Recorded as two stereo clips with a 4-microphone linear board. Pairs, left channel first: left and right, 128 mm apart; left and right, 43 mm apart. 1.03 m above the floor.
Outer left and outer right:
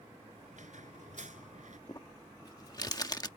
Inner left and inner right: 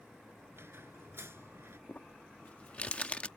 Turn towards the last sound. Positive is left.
turn(degrees=30)  # may be behind; listen again after turning